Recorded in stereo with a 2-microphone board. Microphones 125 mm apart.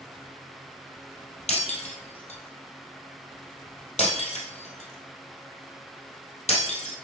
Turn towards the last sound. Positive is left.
turn(degrees=65)  # may be behind; listen again after turning